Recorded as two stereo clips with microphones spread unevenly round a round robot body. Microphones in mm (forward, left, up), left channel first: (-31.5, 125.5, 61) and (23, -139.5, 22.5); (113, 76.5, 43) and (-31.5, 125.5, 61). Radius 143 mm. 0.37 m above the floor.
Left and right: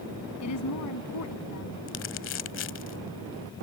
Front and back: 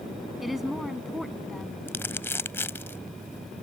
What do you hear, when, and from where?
0.4 s a woman speaking: 70° left
1.9 s crumpling: 55° left